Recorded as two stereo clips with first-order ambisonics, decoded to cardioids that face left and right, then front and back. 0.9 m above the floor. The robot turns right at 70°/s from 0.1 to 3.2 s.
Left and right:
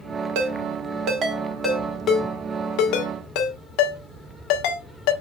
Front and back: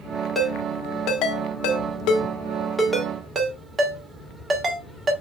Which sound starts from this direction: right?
A ringtone, at 0.3 s.